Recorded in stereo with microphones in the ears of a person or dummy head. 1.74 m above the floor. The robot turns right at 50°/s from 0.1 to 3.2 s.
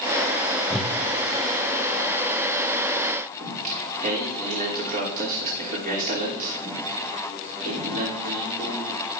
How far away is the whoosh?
About 0.6 m.